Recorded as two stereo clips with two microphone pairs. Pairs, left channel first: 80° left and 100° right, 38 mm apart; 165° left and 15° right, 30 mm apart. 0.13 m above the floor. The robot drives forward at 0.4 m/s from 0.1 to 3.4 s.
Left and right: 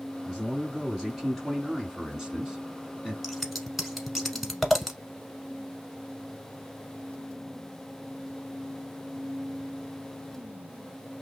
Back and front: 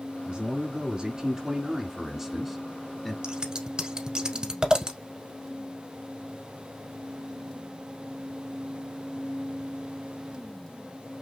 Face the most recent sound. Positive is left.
turn(degrees=-15)